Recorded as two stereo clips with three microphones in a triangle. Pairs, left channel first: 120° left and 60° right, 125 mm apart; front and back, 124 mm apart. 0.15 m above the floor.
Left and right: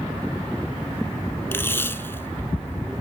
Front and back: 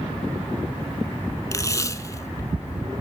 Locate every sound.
1.5 s tape being pulled: 55° left, 0.7 m